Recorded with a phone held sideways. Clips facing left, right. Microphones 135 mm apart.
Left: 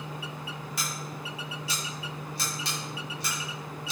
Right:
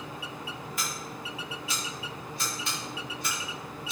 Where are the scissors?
85° left, 1.7 m.